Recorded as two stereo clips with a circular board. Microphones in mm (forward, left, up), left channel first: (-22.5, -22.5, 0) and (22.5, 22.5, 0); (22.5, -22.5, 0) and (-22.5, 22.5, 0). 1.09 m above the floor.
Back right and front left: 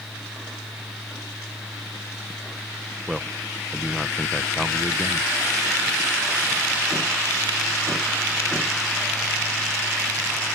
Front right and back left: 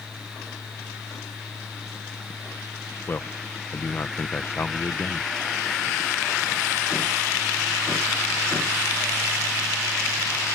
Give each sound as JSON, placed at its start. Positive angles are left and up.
{"t": 3.1, "sound": "a man speaking", "azimuth_deg": -40}